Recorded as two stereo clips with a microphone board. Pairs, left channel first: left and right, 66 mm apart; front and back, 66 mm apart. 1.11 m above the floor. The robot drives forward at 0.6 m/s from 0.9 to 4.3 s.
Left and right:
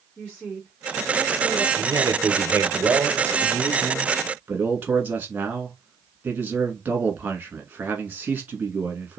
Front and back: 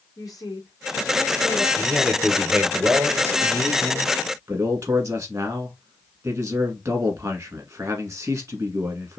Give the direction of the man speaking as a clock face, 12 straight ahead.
3 o'clock.